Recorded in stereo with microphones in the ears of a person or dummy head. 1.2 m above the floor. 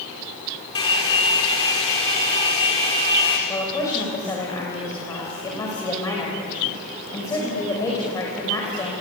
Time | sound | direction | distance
0.8 | a hair dryer | 30° left (ahead or behind) | 4 m
3.5 | a woman speaking | 15° left (ahead or behind) | 5 m